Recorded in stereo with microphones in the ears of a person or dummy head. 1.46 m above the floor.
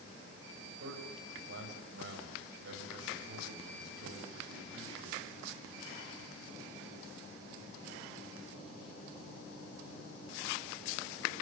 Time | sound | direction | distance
0.8 | a man speaking | 75° right (ahead or behind) | 9 m